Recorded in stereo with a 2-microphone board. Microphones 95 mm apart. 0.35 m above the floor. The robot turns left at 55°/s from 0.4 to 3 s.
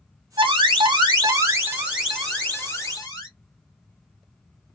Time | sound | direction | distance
0.4 | an alarm | 85° right | 1.5 m